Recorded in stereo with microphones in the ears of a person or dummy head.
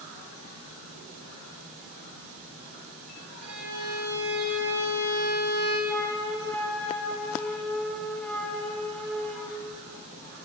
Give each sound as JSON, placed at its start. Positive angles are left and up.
{"t": 3.4, "sound": "a violin", "side_deg": -60, "distance_m": 3.5}
{"t": 5.9, "sound": "a flute", "side_deg": 5, "distance_m": 1.0}